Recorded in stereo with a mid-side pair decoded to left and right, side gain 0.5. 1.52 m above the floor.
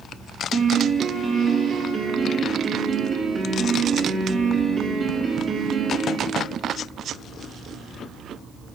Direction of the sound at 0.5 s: 40° right.